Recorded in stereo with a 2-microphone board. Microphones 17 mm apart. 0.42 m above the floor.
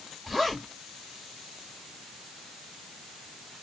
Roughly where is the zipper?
Centre.